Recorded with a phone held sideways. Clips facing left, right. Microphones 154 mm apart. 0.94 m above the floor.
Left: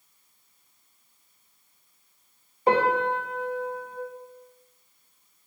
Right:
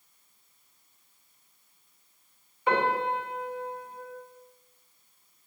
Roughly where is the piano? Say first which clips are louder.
Left 4 dB; left.